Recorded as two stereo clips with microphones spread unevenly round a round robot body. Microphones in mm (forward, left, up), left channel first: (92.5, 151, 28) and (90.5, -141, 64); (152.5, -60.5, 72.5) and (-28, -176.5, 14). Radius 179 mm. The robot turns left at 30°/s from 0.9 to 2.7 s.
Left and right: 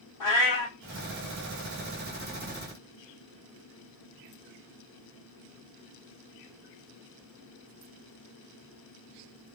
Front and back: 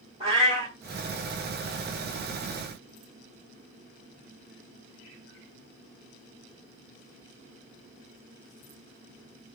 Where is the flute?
I don't hear a flute.